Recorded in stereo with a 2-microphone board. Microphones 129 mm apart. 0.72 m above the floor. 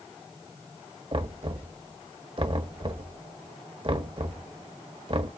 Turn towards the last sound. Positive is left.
turn(degrees=-45)  # may be behind; listen again after turning